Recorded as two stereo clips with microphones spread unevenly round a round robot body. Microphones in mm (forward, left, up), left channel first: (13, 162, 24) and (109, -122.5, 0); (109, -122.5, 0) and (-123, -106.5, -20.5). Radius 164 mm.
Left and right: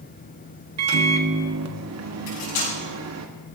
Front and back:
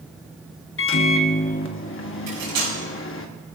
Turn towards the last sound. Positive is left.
turn(degrees=150)